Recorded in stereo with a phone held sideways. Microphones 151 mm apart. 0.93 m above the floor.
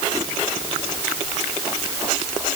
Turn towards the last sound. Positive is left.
No sound to turn to.